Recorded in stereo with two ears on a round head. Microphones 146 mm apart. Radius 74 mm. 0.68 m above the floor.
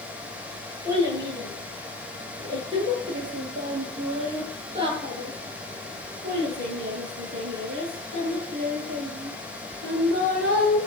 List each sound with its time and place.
0.8 s a child speaking: 20° right (ahead or behind), 7 m; by 10.8 s 70° right (ahead or behind), 7 m